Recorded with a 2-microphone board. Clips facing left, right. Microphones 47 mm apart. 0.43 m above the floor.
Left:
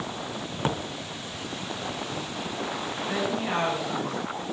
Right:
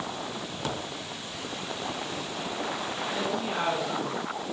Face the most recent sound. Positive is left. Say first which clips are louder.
# left 4 dB
turn(degrees=65)  # may be behind; listen again after turning